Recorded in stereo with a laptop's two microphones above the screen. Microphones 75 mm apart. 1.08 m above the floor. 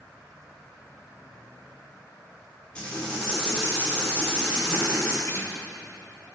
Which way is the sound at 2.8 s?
15° left (ahead or behind).